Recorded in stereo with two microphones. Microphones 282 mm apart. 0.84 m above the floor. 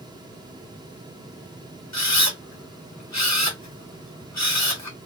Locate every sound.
1.9 s a camera shutter: 70° left (ahead or behind), 0.9 m